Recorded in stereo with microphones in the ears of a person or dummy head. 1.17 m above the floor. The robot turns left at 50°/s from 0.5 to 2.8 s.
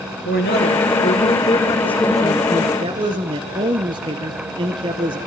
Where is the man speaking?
85° left, 0.9 m; by 5.2 s 30° right, 0.9 m.